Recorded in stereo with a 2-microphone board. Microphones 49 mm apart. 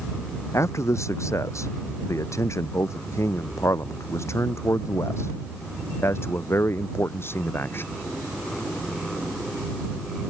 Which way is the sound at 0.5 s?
80° left.